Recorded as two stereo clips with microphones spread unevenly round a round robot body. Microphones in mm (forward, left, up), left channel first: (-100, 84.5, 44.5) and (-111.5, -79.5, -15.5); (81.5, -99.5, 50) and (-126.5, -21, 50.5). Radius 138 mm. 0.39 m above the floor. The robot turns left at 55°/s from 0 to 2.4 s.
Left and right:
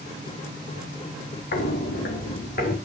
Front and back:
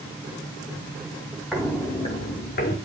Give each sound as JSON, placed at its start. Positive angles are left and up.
{"t": 1.5, "sound": "footsteps", "azimuth_deg": 70, "distance_m": 1.7}